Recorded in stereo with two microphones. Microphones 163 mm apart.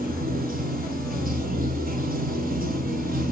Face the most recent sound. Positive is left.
turn(degrees=-60)  # may be behind; listen again after turning